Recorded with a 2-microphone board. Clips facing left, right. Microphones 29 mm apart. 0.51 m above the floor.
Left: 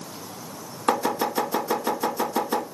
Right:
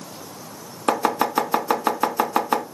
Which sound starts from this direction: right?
Chopping, at 0.9 s.